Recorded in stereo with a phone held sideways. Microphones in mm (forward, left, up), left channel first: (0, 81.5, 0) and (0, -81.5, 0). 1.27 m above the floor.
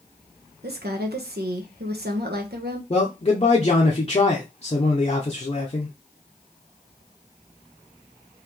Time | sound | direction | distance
0.6 | a woman speaking | 80° right | 1.0 m
2.9 | a man speaking | 35° left (ahead or behind) | 0.7 m